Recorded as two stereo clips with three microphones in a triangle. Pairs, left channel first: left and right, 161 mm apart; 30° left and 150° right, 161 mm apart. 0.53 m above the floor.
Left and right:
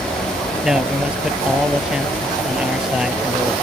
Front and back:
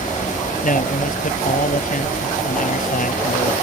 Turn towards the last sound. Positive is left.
turn(degrees=-5)